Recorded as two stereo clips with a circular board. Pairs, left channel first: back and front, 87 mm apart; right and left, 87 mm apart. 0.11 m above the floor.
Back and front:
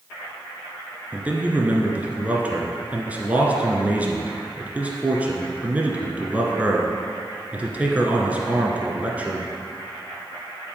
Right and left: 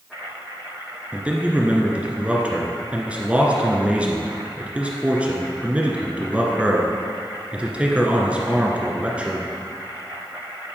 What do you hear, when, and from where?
1.1 s a man speaking: 40° left, 1.5 m